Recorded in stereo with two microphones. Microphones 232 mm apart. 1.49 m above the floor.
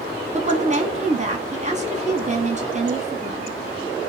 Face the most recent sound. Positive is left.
turn(degrees=-35)  # may be behind; listen again after turning